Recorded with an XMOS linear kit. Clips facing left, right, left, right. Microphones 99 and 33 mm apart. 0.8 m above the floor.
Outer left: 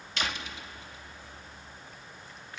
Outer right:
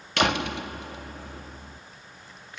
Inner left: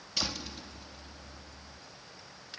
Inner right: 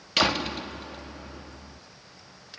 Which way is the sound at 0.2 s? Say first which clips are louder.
Outer right 11 dB, inner right 12 dB; 65° right (ahead or behind).